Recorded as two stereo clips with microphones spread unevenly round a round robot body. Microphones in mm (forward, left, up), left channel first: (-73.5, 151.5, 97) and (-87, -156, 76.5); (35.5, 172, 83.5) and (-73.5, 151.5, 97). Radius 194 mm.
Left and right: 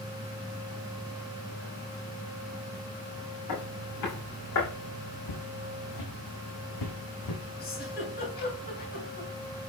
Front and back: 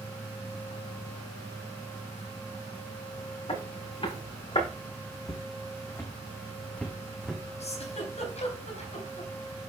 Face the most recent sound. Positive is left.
turn(degrees=25)